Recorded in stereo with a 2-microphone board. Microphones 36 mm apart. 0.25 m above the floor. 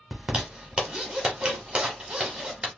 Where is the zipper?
25° right (ahead or behind), 1.0 m.